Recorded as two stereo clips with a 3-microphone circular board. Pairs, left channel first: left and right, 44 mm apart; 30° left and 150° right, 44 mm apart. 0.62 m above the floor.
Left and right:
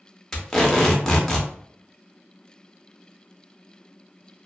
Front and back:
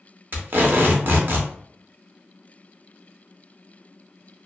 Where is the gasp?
I don't hear a gasp.